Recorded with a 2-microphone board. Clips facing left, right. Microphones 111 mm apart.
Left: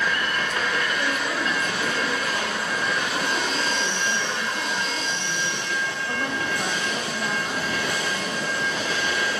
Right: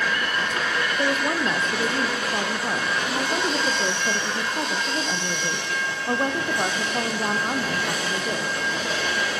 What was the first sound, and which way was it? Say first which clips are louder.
A woman speaking: right 3 dB; 35° right (ahead or behind).